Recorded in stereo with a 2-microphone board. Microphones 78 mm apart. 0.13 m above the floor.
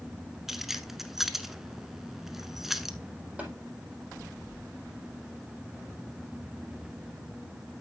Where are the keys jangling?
5° right (ahead or behind), 1.0 m.